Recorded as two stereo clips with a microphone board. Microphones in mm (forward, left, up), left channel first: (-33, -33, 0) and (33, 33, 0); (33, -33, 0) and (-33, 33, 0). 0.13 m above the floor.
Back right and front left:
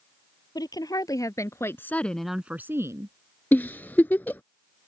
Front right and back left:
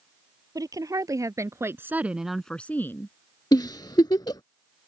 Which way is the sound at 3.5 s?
70° right.